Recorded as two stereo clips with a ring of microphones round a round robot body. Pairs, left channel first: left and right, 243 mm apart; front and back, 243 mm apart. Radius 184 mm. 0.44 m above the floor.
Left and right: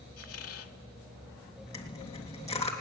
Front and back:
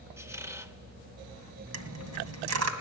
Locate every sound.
0.2 s a squeak: 100° left, 1.2 m
1.7 s a dropped coin: 170° left, 2.0 m